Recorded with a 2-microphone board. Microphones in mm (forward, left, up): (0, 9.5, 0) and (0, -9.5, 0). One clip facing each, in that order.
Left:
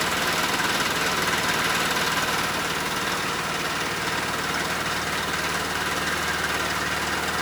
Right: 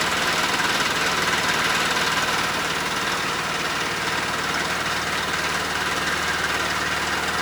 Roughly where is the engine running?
Centre.